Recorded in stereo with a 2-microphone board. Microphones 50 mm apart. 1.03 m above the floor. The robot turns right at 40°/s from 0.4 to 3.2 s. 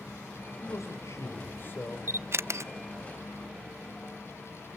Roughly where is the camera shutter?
Right.